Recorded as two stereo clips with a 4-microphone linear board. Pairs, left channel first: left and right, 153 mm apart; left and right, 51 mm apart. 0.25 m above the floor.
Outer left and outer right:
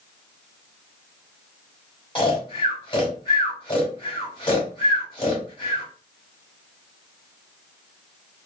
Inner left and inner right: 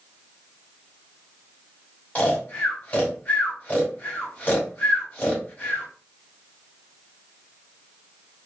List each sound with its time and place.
2.1 s snoring: 30° left (ahead or behind), 1.3 m